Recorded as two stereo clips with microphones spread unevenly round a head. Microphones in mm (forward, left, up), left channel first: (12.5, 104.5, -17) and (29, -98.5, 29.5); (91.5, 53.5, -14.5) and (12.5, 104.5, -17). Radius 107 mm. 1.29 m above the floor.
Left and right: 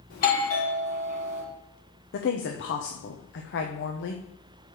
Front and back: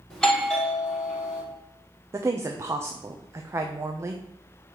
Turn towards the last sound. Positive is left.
turn(degrees=90)